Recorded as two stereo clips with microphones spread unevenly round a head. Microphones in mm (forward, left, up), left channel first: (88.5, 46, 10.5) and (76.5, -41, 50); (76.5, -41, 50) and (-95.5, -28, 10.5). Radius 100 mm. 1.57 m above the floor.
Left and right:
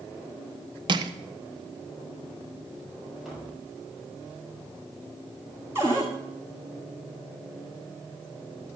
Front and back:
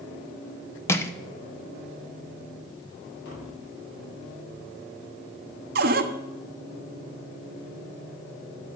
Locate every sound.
0.9 s crushing: 75° right, 1.0 m
3.2 s tapping: 15° right, 6 m
5.8 s a cupboard door: 145° right, 1.3 m